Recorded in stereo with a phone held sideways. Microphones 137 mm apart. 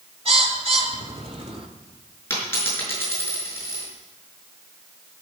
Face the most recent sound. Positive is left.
turn(degrees=20)  # may be behind; listen again after turning